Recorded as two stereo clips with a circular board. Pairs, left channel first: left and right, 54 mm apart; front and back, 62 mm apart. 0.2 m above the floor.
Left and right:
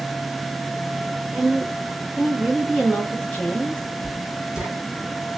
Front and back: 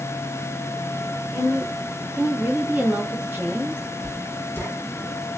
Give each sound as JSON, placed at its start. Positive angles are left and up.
{"t": 1.3, "sound": "a woman speaking", "azimuth_deg": -100, "distance_m": 1.9}
{"t": 4.0, "sound": "writing", "azimuth_deg": -30, "distance_m": 1.9}